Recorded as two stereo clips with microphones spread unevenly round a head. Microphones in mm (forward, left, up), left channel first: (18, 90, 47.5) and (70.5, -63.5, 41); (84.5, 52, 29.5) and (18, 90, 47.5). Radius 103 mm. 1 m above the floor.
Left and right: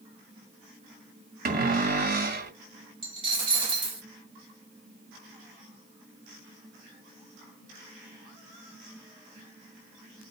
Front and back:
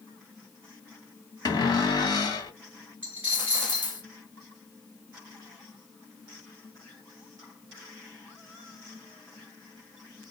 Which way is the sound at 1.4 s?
70° right.